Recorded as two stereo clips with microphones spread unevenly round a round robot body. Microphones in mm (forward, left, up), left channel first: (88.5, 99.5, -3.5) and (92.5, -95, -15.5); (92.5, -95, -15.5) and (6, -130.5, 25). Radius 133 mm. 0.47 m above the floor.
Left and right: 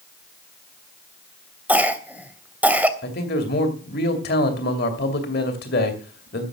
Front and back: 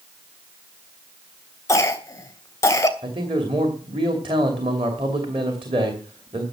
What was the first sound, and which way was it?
A cough, 10° right.